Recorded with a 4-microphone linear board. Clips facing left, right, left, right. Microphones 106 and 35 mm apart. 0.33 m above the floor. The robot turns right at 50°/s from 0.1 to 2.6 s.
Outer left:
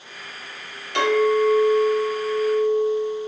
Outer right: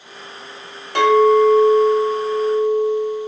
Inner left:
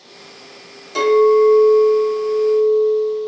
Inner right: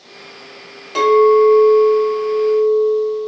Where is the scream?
I don't hear a scream.